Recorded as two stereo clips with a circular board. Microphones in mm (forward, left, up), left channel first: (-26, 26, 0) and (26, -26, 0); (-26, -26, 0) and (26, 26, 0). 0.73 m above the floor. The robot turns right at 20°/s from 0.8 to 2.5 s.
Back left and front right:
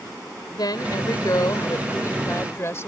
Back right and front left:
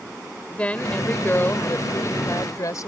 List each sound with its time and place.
0.5 s a woman speaking: 155° left; by 2.9 s 175° right